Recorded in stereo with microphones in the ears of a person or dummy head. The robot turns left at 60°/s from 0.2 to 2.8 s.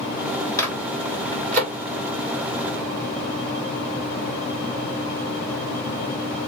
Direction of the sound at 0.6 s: 15° left (ahead or behind).